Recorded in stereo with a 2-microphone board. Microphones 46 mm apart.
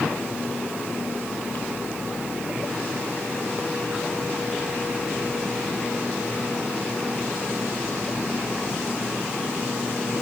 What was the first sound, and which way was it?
Only background noise.